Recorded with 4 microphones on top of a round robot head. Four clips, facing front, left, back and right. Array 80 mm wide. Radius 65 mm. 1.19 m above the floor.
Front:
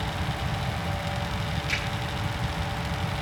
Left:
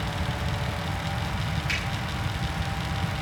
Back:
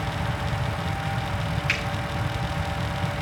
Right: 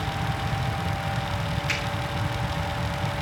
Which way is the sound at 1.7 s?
170° right.